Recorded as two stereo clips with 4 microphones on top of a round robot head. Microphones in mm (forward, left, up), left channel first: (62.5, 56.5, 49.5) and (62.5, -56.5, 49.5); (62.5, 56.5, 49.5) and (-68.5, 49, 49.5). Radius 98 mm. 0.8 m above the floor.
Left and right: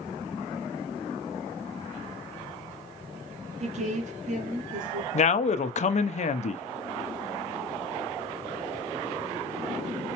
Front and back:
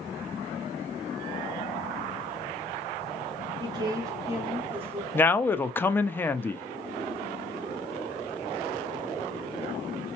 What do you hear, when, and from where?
3.6 s a woman speaking: 120° right, 1.1 m; by 5.0 s 95° right, 1.8 m
5.1 s a man speaking: 80° left, 0.7 m